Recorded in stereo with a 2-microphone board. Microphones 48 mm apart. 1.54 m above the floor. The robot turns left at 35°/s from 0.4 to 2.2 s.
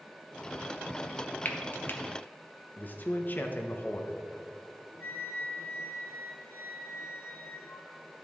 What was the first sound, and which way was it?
Frying, 35° left (ahead or behind).